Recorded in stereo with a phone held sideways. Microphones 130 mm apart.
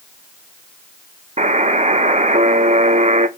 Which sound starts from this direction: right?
A buzzer, at 1.4 s.